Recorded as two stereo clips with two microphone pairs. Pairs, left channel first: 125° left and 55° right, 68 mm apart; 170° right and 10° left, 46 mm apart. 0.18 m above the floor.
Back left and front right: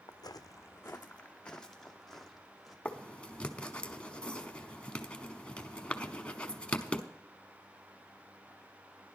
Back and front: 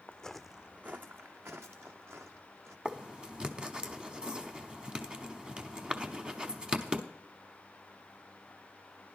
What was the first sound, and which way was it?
Footsteps, 125° left.